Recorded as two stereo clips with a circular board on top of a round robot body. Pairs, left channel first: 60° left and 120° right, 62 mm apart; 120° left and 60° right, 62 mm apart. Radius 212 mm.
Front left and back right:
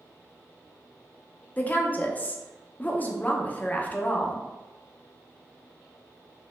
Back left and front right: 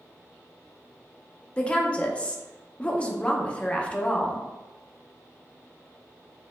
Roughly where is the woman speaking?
Left.